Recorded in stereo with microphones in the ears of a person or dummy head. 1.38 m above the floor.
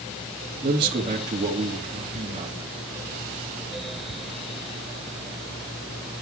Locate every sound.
0.6 s a man speaking: 30° right (ahead or behind), 3 m